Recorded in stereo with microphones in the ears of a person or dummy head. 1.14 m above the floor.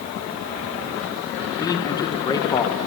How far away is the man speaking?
About 3 m.